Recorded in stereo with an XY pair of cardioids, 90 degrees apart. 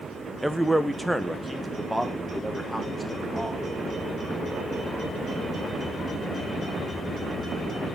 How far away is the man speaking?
About 1.0 m.